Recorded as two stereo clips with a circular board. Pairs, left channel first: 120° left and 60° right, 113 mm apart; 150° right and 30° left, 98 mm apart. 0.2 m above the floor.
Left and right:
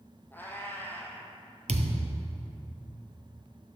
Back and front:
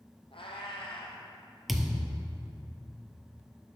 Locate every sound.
0.3 s a cat meowing: 165° right, 1.8 m
1.7 s a thud: 60° right, 0.9 m